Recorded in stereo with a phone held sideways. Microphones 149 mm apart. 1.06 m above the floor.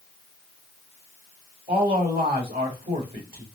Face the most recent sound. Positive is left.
turn(degrees=-80)